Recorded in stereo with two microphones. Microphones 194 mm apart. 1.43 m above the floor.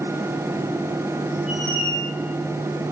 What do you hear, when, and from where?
1.5 s a squeak: 40° right (ahead or behind), 6.5 m